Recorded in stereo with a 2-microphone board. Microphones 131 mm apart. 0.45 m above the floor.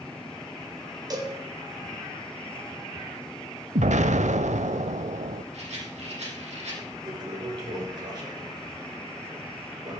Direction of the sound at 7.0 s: 40° right (ahead or behind).